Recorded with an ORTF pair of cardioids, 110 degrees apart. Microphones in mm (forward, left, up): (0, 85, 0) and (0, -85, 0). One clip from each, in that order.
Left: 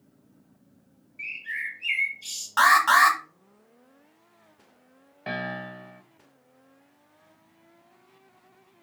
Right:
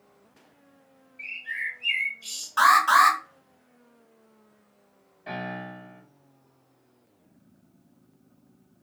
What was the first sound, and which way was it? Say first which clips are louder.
A bird: even; 20° left.